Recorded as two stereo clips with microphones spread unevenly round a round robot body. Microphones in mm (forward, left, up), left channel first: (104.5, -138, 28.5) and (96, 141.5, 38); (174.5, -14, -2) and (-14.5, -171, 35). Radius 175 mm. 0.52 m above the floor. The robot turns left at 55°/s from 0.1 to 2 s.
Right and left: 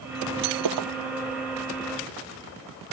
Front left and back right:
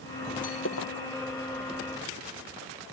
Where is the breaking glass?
110° left; by 0.9 s 85° left.